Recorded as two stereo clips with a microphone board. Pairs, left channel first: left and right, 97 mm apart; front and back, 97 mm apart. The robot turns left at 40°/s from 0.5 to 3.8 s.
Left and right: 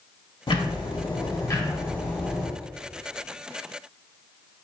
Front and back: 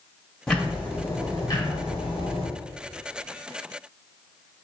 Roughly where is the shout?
I don't hear a shout.